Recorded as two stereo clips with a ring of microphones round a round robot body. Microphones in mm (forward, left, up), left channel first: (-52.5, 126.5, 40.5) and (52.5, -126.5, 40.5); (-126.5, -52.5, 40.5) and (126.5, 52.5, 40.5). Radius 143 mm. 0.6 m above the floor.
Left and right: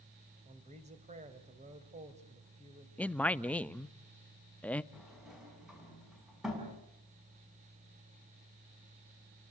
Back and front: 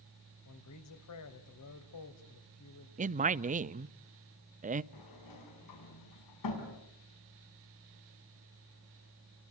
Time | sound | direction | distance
0.5 | a man speaking | 135° right | 3.5 m
3.0 | a man speaking | 35° left | 0.6 m
4.9 | a sliding door | 155° right | 7 m